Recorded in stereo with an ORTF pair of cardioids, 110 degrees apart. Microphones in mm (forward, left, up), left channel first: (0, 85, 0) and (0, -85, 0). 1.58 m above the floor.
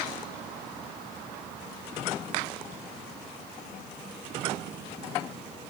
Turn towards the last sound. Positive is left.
No sound to turn to.